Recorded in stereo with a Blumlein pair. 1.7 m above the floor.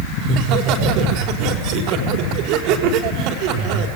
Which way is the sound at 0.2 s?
40° right.